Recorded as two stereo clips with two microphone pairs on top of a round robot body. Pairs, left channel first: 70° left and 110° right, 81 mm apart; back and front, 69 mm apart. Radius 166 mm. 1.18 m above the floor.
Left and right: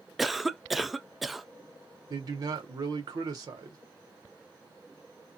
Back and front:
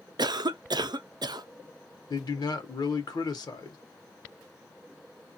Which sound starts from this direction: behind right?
A man speaking, at 2.1 s.